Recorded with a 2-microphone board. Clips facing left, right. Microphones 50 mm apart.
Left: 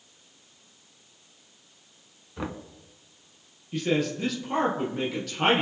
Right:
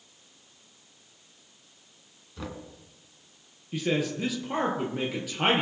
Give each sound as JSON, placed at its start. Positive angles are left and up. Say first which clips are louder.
{"t": 2.4, "sound": "knocking", "louder": "left 4 dB", "side_deg": 30, "distance_m": 0.9}
{"t": 3.7, "sound": "a man speaking", "louder": "left 2 dB", "side_deg": -5, "distance_m": 2.5}